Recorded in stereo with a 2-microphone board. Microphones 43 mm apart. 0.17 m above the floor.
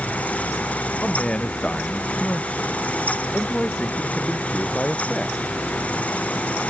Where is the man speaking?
20° left (ahead or behind).